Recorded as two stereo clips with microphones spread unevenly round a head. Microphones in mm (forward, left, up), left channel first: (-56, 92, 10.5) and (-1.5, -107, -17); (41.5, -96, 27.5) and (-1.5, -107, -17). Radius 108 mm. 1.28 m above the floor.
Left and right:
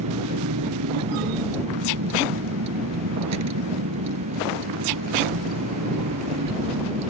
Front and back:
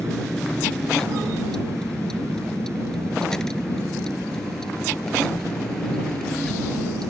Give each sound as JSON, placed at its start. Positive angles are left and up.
{"t": 0.0, "sound": "a vehicle", "azimuth_deg": -60}